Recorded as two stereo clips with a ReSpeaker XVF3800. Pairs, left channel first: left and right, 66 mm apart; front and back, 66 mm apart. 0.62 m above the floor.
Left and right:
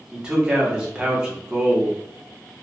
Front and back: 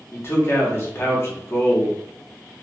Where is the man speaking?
20° right, 0.9 m.